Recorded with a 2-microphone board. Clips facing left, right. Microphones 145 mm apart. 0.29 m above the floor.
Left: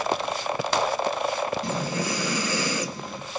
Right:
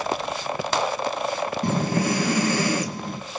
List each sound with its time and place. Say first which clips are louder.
1.6 s breathing: right 5 dB; 60° right (ahead or behind), 2.5 m